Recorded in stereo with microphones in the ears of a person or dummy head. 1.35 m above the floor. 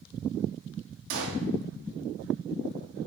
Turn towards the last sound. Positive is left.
turn(degrees=-70)  # may be behind; listen again after turning